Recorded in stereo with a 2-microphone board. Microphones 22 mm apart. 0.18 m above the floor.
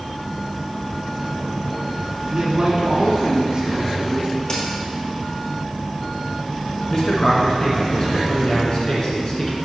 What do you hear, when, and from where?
2.3 s a man speaking: 50° right (ahead or behind), 1.6 m
4.5 s a crack: 35° left (ahead or behind), 1.7 m
6.9 s a man speaking: 40° left (ahead or behind), 1.8 m